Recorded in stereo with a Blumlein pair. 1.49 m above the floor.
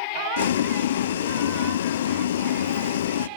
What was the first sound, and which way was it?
Boiling, 60° left.